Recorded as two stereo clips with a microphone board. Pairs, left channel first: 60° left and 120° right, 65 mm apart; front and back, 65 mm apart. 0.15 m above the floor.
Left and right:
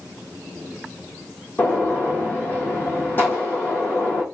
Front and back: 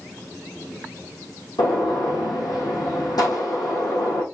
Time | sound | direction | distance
1.6 | a gunshot | straight ahead | 2.5 m